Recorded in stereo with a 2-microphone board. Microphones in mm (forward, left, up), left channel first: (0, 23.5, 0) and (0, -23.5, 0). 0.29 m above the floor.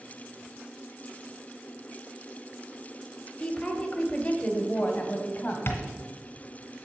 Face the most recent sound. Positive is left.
turn(degrees=55)  # may be behind; listen again after turning